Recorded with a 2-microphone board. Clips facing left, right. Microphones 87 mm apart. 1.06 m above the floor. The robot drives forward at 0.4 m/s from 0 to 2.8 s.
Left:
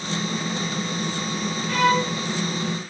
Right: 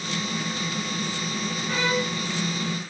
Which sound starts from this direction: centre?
A violin, at 1.7 s.